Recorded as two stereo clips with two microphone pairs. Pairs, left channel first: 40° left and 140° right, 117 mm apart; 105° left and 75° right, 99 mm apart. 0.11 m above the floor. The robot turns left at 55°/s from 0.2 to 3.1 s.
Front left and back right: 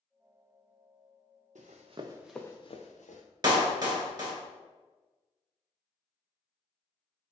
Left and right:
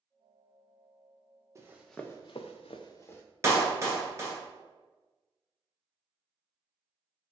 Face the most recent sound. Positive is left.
turn(degrees=-120)